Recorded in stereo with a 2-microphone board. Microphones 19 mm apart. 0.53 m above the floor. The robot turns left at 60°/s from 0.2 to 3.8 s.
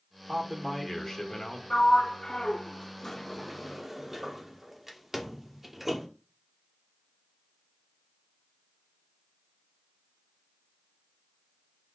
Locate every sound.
0.3 s a man speaking: 160° right, 1.6 m; by 1.6 s 120° left, 1.6 m
1.7 s a sliding door: 35° left (ahead or behind), 1.1 m; by 6.1 s 10° right (ahead or behind), 1.1 m